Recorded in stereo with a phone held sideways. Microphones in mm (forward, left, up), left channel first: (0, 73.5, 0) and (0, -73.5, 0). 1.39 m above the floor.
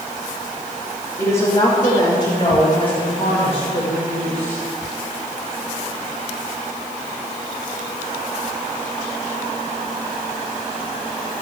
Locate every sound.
1.2 s a woman speaking: 40° left (ahead or behind), 3 m; by 4.6 s 55° left (ahead or behind), 6 m